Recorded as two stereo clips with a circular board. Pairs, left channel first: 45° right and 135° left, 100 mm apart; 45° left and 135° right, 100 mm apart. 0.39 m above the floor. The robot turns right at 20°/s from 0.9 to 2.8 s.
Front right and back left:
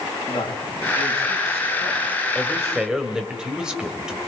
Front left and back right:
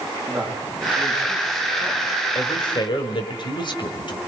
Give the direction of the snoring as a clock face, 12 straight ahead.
I don't hear snoring.